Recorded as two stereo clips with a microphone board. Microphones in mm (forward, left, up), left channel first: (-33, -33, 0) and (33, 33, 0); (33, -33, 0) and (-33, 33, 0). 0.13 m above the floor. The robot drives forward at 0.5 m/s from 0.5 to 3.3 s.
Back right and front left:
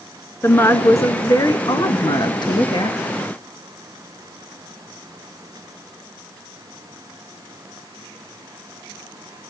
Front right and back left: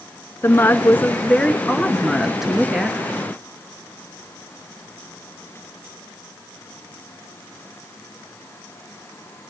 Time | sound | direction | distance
0.4 | a woman speaking | 90° right | 1.3 m